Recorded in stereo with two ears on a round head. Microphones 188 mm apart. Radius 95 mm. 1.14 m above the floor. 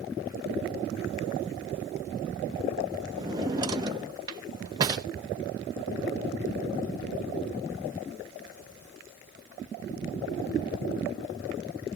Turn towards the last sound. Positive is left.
turn(degrees=-20)  # may be behind; listen again after turning